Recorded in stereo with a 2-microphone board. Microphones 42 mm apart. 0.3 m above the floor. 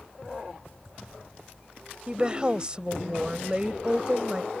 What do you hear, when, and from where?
2.1 s a woman speaking: 25° right (ahead or behind)